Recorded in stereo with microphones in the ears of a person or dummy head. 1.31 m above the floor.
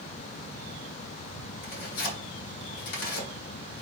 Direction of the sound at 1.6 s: 60° left (ahead or behind).